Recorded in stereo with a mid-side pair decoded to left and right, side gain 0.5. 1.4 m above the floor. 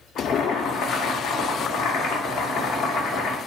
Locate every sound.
0.2 s boiling: 70° left, 0.8 m